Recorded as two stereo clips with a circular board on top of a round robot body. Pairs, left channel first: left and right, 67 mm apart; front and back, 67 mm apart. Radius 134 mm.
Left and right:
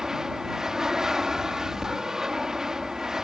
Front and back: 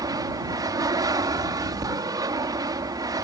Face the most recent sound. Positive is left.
turn(degrees=-170)